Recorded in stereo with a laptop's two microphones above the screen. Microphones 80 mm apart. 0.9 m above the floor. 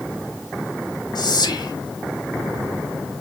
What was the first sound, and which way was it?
Whispering, 65° left (ahead or behind).